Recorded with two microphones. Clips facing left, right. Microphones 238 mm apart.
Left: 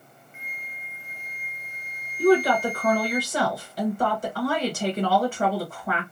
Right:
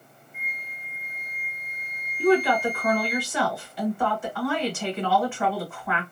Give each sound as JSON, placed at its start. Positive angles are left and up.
{"t": 0.3, "sound": "a flute", "side_deg": 75, "distance_m": 0.7}
{"t": 2.2, "sound": "a woman speaking", "side_deg": 40, "distance_m": 1.4}